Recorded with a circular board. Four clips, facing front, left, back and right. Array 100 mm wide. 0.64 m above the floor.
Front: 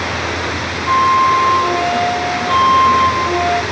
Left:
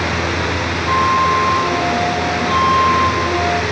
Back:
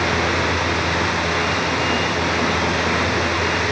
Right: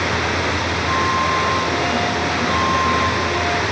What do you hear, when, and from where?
0.9 s a flute: 25° left